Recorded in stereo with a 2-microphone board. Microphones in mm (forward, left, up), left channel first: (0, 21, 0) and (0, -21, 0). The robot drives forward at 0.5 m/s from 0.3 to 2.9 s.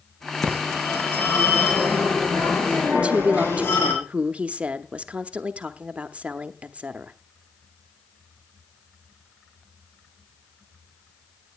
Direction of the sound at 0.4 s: 70° left (ahead or behind).